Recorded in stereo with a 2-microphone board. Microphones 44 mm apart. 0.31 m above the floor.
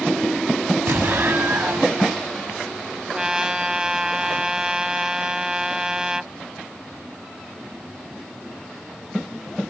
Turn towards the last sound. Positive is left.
turn(degrees=-15)  # may be behind; listen again after turning